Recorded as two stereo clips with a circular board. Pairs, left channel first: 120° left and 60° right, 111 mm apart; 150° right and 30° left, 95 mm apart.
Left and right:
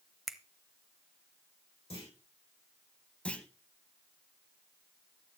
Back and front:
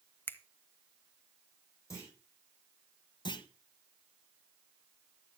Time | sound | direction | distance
0.3 | a finger snap | 145° right | 0.8 m
1.9 | a clunk | 150° left | 4 m
3.2 | a clunk | 165° right | 0.8 m